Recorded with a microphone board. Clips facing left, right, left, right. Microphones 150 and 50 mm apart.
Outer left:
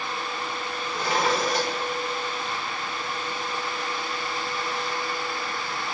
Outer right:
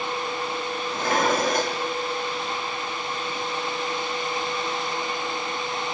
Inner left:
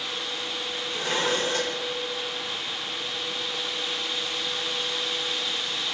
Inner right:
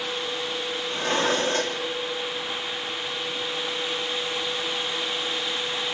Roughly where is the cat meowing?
I don't hear a cat meowing.